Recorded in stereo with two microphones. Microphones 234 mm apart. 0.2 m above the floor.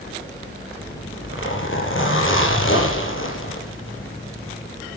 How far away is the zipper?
About 5 m.